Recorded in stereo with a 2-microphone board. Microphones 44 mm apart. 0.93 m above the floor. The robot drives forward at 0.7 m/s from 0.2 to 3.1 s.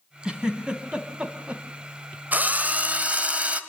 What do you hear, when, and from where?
0.2 s a giggle: 20° right (ahead or behind), 3 m; by 1.6 s 30° right (ahead or behind), 2.5 m
2.3 s a drill: 40° right (ahead or behind), 1.4 m; by 3.6 s 30° right (ahead or behind), 1.9 m